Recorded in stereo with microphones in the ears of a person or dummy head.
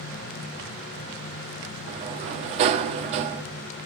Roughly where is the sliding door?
Right.